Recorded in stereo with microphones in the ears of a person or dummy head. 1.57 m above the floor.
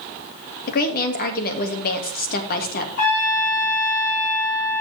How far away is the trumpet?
About 6 m.